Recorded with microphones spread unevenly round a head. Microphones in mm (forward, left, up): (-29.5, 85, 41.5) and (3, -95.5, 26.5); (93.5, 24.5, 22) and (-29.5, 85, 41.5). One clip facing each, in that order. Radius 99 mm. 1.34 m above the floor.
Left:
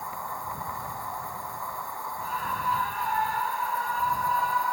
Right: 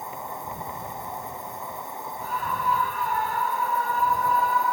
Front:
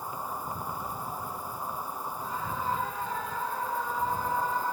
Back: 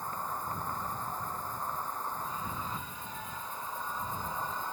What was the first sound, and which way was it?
An insect, 70° right.